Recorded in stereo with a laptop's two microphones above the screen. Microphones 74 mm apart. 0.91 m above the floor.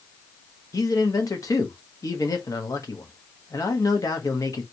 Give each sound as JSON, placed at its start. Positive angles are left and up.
{"t": 0.7, "sound": "a man speaking", "side_deg": 55, "distance_m": 1.1}